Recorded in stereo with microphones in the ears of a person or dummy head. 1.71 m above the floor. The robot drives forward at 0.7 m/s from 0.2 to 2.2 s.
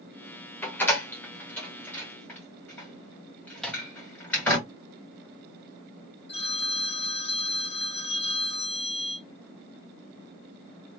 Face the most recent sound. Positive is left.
turn(degrees=35)  # may be behind; listen again after turning